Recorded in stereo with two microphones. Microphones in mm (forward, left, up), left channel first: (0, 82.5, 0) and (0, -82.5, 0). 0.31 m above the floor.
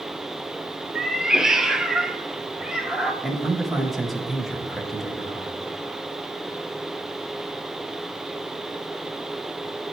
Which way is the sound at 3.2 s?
Centre (ahead or behind).